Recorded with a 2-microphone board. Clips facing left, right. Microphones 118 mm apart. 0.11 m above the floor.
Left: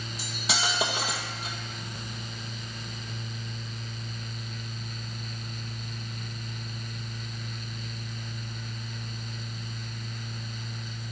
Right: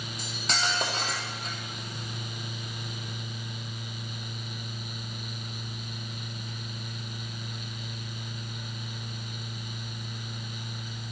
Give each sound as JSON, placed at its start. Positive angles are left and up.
{"t": 0.2, "sound": "cutlery clinking", "side_deg": 5, "distance_m": 1.8}